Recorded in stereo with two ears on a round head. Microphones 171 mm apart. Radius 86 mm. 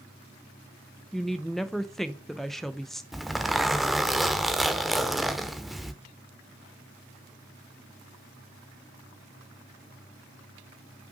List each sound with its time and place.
1.1 s a woman speaking: centre (ahead or behind), 0.5 m
3.1 s a zipper: centre (ahead or behind), 0.8 m